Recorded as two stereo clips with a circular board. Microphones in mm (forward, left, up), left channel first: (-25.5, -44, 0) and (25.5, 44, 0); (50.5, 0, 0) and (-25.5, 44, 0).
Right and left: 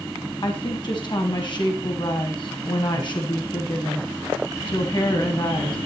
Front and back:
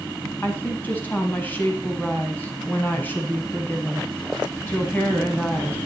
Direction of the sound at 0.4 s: 95° right.